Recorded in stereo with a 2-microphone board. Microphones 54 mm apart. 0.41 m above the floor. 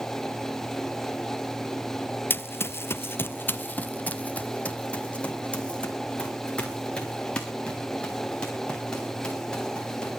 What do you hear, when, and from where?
2.3 s running footsteps: 40° left (ahead or behind), 0.5 m; by 10.1 s 15° left (ahead or behind), 4.5 m